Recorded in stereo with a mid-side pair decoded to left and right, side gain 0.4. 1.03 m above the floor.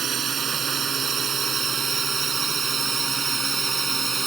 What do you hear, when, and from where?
0.0 s a drone: 55° right; by 4.3 s 35° right